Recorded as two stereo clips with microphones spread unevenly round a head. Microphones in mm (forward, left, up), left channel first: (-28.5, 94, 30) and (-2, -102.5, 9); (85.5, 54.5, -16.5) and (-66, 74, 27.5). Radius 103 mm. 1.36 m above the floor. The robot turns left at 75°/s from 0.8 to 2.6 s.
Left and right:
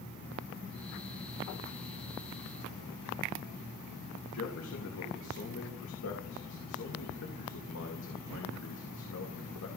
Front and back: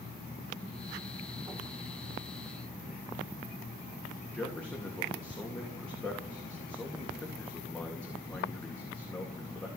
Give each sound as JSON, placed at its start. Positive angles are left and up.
{"t": 4.3, "sound": "a man speaking", "azimuth_deg": 75, "distance_m": 2.5}